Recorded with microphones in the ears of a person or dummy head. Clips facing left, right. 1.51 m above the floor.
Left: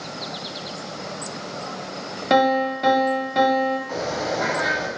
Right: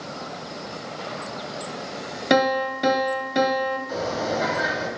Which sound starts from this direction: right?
A piano, at 2.3 s.